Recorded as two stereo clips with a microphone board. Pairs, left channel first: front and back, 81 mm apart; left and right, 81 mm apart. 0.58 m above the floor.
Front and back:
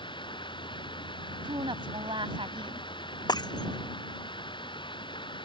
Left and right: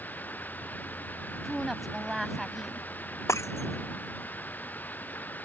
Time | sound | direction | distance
0.0 | running water | 20° left | ?
1.4 | a woman speaking | straight behind | ?
3.3 | breaking glass | 35° left | ?